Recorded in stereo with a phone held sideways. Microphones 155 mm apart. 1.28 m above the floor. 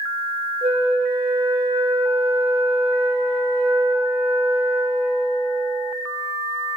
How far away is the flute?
About 1.7 m.